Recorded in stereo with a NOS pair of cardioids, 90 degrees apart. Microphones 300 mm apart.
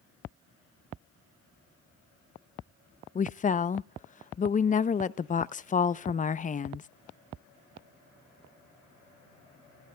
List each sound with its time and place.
3.1 s a woman speaking: 25° left, 0.6 m